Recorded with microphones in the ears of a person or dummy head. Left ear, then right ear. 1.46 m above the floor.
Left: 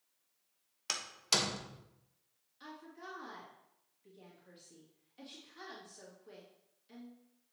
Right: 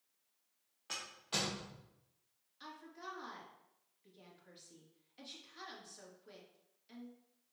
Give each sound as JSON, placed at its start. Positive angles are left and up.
{"t": 0.9, "sound": "a door slam", "side_deg": 75, "distance_m": 1.3}
{"t": 2.6, "sound": "a woman speaking", "side_deg": -15, "distance_m": 2.5}